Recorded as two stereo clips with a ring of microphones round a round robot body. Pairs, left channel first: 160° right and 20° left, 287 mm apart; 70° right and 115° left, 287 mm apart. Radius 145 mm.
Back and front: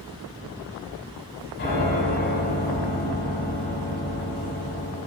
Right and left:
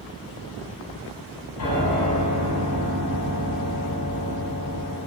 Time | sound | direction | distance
1.6 | a piano | 100° right | 6.5 m